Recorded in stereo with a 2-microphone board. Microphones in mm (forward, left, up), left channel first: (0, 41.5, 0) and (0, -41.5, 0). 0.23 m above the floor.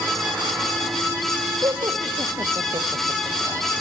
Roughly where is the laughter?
Right.